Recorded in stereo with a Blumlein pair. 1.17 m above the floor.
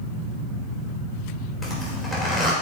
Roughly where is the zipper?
Ahead.